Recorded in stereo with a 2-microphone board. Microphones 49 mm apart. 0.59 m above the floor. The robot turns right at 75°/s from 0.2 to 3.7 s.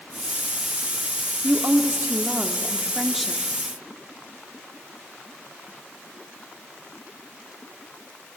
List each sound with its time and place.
1.4 s a woman speaking: 135° right, 0.9 m; by 3.4 s 15° left, 0.9 m